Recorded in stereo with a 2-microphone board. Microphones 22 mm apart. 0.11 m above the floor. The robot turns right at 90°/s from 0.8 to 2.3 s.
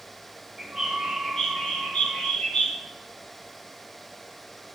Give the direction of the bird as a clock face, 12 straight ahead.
12 o'clock.